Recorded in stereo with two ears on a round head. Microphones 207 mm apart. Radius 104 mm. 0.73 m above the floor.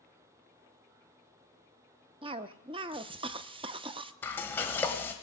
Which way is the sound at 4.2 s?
10° left (ahead or behind).